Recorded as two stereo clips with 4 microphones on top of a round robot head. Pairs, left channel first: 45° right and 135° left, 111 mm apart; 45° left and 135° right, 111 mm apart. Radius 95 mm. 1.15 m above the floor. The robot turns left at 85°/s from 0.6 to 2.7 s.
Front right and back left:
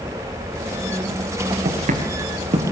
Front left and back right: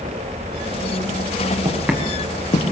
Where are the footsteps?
175° left, 5.5 m; by 2.6 s 90° left, 5.5 m.